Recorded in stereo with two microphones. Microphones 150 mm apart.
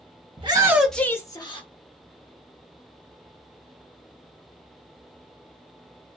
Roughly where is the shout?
Right.